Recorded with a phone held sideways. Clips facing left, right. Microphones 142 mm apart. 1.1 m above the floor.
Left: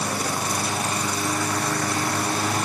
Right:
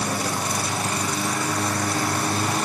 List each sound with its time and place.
Only background noise.